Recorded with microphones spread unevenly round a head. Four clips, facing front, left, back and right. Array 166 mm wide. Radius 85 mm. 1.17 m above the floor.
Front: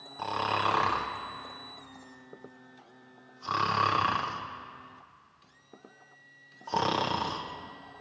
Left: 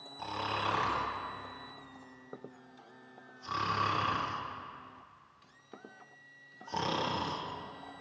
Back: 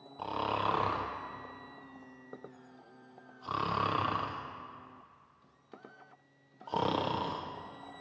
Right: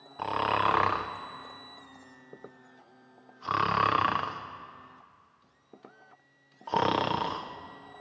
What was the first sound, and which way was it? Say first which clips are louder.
Snoring: right 8 dB, front 4 dB; 85° right.